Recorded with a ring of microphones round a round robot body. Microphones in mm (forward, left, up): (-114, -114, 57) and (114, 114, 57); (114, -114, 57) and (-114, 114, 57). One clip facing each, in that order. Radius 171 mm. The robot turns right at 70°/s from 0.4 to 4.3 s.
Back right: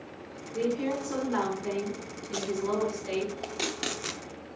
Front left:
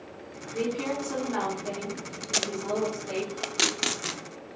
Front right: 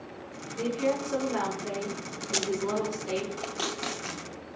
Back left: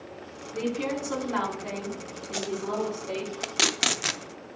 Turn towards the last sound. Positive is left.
turn(degrees=150)